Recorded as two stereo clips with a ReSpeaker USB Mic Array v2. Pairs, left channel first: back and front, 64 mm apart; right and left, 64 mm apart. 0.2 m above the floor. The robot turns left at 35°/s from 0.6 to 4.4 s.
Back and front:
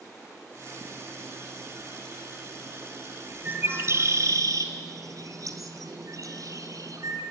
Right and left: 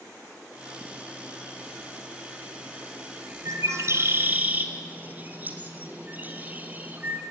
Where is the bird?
60° left, 2.5 m; by 7.2 s 30° left, 2.5 m.